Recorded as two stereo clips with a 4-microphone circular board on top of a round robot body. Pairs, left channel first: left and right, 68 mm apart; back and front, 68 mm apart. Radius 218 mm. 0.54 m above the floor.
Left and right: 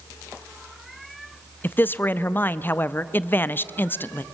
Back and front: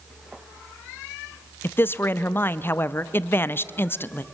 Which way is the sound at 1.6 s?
140° left.